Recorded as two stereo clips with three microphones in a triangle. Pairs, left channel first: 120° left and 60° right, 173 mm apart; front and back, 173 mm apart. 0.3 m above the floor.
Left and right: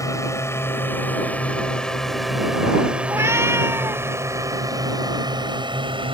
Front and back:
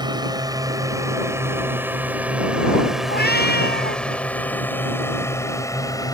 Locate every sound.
0.0 s a drone: 165° left; by 6.1 s 45° right
3.1 s a cat meowing: 15° left